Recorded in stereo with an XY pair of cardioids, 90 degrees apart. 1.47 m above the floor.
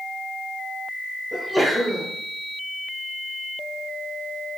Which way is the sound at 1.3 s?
10° right.